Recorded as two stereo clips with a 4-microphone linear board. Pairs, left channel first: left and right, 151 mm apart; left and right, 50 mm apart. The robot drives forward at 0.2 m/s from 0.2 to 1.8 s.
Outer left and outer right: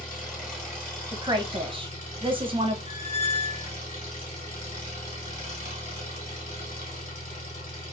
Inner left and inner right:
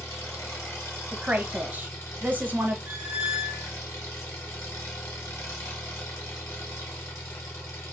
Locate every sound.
0.0 s an engine running: 65° left (ahead or behind), 1.8 m; by 7.9 s 60° left (ahead or behind), 1.9 m
1.1 s a woman speaking: 30° right (ahead or behind), 0.7 m; by 2.8 s 35° right (ahead or behind), 0.6 m
2.9 s a squeak: 35° right (ahead or behind), 0.9 m